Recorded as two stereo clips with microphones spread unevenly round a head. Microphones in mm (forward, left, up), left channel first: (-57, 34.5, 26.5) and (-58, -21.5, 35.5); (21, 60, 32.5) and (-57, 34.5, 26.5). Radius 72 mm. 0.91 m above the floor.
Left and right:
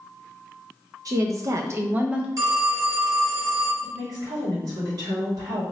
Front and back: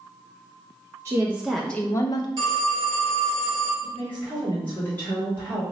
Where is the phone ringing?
110° right, 1.5 m.